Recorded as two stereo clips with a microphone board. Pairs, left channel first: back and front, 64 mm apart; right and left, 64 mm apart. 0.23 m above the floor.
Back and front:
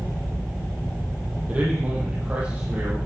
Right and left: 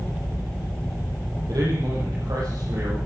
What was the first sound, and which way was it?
A man speaking, 70° left.